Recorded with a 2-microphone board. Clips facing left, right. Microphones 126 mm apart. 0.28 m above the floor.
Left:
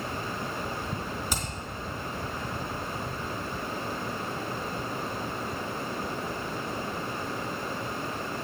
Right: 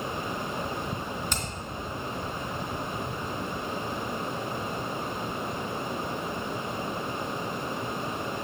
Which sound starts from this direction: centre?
Hammering, at 1.3 s.